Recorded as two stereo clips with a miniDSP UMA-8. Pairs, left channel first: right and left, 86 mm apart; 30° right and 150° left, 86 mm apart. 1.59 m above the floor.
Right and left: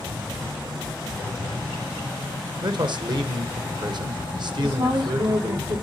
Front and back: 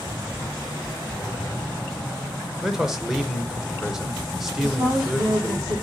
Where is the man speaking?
65° left, 1.0 m.